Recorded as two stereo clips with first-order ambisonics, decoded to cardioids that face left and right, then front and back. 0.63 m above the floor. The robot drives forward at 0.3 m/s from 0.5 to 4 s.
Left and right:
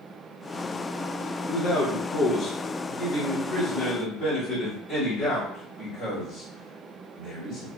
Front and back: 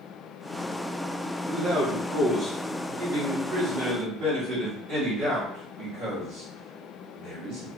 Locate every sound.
1.4 s a man speaking: 145° left, 0.9 m; by 7.7 s 170° left, 1.3 m